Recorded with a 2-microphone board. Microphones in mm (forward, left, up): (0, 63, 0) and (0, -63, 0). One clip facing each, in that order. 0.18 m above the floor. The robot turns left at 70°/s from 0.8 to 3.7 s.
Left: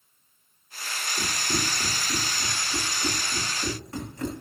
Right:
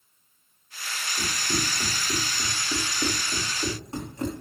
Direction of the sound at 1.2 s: 35° left (ahead or behind).